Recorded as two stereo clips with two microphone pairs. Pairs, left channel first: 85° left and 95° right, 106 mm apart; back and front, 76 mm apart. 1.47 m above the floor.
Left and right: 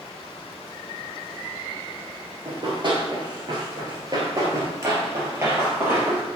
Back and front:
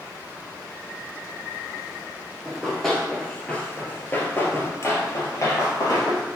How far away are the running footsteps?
About 2.0 m.